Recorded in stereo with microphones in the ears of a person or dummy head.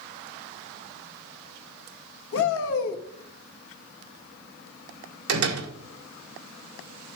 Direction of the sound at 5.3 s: 80° right.